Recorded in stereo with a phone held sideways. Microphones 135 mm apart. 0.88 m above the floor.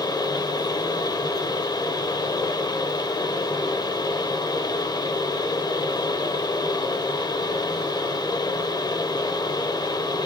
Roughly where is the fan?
Left.